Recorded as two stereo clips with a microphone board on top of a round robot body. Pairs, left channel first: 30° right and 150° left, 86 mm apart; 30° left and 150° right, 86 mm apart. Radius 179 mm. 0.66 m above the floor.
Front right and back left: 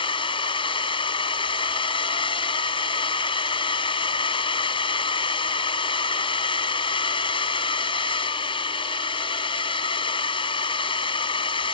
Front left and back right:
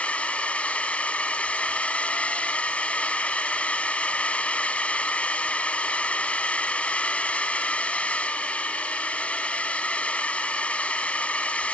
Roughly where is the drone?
Ahead right.